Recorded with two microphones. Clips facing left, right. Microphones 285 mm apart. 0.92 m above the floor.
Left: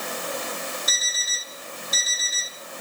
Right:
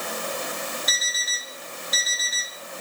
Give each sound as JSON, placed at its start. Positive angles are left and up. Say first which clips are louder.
{"t": 0.9, "sound": "an alarm clock", "louder": "even", "side_deg": 50, "distance_m": 8.0}